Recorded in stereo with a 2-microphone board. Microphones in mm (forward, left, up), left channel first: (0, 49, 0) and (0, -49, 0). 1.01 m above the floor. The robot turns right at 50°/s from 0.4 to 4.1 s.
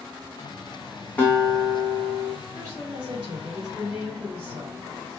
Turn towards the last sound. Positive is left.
turn(degrees=-70)